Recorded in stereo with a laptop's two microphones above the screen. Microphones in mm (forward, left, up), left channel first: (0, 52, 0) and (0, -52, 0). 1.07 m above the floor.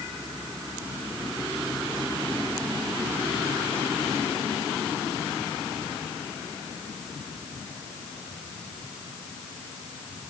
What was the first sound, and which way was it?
Only background noise.